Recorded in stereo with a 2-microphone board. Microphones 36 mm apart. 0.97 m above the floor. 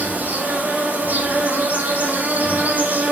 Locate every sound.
0.0 s an insect: 55° right (ahead or behind), 6.5 m